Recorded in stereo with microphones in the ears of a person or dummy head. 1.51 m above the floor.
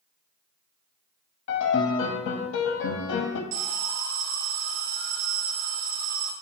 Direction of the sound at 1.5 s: 75° left (ahead or behind).